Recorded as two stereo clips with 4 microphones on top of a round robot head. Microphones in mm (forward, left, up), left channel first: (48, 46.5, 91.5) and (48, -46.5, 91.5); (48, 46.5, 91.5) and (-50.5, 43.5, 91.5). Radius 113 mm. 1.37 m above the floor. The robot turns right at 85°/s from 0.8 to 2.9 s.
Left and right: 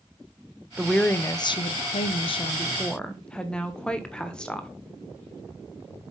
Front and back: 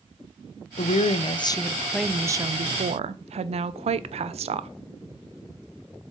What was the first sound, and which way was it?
A woman speaking, 5° right.